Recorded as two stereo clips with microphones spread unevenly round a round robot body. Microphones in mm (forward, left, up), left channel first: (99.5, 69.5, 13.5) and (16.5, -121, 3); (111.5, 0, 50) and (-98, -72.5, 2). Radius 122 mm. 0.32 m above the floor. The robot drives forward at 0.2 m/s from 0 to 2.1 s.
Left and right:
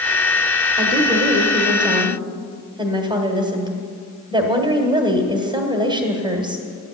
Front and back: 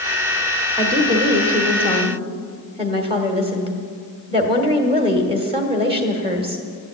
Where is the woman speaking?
155° right, 1.3 m; by 6.6 s 160° right, 1.4 m.